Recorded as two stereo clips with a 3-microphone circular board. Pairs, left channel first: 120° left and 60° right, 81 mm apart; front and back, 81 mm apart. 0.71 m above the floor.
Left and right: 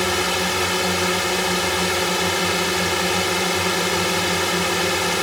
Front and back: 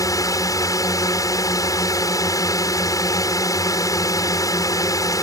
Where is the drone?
30° left.